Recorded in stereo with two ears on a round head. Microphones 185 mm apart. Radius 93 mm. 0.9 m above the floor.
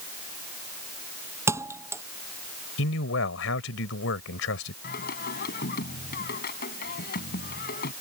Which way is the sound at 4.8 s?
50° left (ahead or behind).